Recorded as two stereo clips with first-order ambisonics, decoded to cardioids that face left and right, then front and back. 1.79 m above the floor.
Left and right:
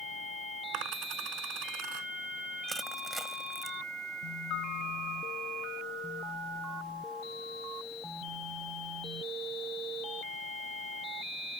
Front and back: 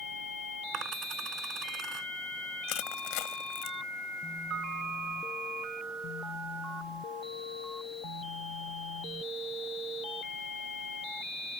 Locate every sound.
0.7 s a dropped coin: 125° right
2.7 s crushing: 5° right
4.5 s a piano: 120° left